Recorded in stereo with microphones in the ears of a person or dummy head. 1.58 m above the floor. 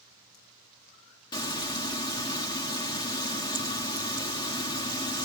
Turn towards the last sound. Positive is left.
turn(degrees=25)  # may be behind; listen again after turning